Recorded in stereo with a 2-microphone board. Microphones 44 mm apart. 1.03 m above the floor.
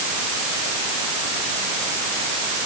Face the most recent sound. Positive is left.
No sound to turn to.